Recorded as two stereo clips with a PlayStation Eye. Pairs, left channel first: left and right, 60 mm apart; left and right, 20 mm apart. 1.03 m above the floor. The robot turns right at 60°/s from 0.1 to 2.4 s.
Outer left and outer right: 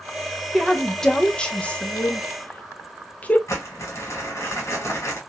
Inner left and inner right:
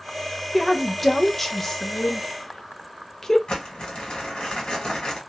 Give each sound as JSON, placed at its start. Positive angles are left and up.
{"t": 0.5, "sound": "a woman speaking", "side_deg": -5, "distance_m": 0.5}
{"t": 3.5, "sound": "crumpling", "side_deg": 50, "distance_m": 1.3}